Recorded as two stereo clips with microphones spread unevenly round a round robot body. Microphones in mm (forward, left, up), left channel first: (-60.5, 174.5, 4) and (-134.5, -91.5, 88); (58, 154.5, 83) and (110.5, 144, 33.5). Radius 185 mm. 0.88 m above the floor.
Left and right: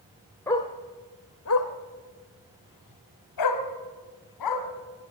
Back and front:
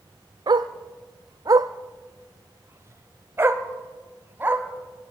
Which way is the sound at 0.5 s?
15° right.